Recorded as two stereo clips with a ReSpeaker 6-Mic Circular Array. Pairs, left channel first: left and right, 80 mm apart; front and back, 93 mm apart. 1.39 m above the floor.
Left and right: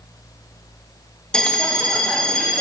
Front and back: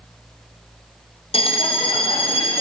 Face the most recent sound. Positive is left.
turn(degrees=10)